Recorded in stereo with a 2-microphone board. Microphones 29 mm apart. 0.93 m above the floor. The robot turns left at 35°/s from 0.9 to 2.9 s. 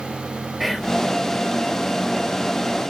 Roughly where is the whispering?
Centre.